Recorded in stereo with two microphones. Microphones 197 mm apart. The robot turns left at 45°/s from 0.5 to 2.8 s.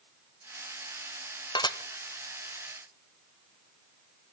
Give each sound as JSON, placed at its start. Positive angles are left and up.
{"t": 1.6, "sound": "dishes clattering", "side_deg": 25, "distance_m": 0.8}